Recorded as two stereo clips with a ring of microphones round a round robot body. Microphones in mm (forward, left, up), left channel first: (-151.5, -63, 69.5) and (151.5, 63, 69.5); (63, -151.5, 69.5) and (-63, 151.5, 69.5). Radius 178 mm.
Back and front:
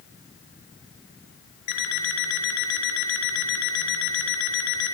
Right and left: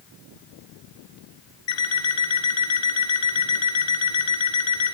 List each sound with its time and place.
1.7 s an alarm clock: 115° right, 3.5 m